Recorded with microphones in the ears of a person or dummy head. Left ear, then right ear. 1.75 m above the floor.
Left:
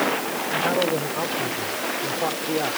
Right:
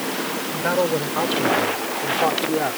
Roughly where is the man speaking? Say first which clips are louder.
Right 1 dB; right.